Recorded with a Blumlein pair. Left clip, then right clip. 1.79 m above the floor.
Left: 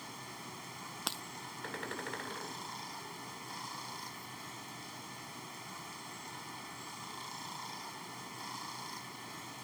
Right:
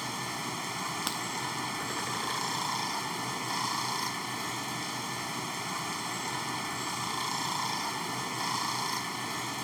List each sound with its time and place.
0.0 s running water: 60° right
1.1 s breaking glass: 5° right